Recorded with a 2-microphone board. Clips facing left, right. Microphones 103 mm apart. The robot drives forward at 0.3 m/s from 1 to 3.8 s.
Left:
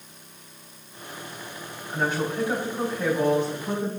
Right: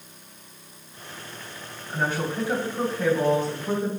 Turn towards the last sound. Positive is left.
turn(degrees=15)  # may be behind; listen again after turning